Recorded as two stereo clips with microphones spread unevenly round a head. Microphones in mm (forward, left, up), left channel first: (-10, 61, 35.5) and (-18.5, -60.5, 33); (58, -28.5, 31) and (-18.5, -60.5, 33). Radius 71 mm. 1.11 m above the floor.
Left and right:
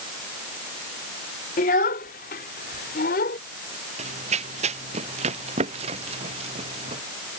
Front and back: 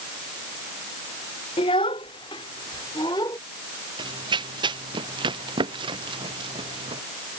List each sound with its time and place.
1.6 s a child speaking: 60° left; by 3.4 s 85° left
4.0 s running footsteps: 130° right; by 7.0 s 140° right